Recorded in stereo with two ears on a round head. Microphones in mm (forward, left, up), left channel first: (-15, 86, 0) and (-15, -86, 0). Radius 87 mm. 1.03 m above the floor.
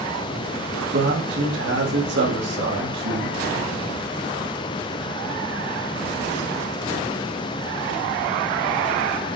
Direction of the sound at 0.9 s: 60° right (ahead or behind).